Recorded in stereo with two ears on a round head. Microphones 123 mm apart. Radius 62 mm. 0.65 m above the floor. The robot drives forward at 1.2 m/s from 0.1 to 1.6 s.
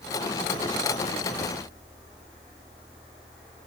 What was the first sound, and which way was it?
Only background noise.